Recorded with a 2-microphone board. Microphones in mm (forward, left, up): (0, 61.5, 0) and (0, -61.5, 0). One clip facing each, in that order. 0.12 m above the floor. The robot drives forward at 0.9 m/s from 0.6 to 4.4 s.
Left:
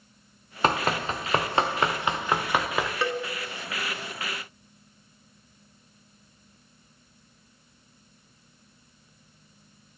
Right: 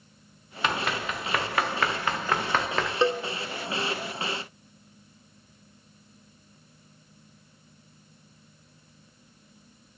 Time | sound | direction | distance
0.6 | running footsteps | 40° left (ahead or behind) | 0.9 m
3.0 | a cowbell | 25° right (ahead or behind) | 0.5 m